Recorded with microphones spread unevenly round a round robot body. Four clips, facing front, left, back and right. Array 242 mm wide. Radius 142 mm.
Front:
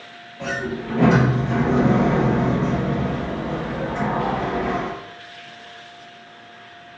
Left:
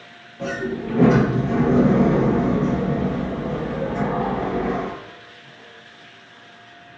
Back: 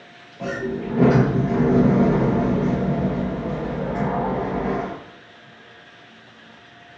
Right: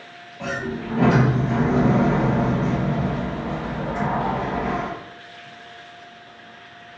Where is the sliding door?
125° left, 1.9 m.